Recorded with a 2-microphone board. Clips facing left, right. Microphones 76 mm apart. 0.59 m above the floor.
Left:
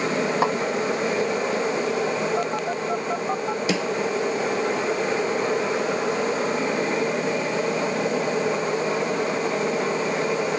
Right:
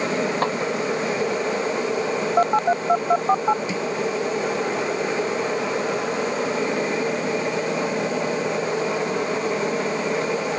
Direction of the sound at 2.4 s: 40° right (ahead or behind).